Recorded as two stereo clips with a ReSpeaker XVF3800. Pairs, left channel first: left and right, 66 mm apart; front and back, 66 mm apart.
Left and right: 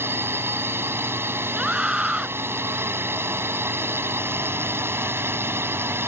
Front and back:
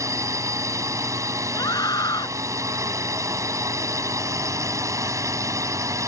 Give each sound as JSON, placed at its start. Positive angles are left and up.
{"t": 0.0, "sound": "a drone", "azimuth_deg": -145}
{"t": 1.6, "sound": "a scream", "azimuth_deg": -10}